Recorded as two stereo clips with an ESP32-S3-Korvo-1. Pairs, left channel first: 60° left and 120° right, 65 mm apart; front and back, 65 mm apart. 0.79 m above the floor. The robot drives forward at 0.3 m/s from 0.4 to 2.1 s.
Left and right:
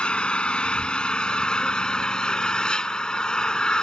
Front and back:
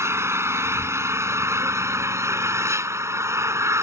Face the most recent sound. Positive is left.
turn(degrees=135)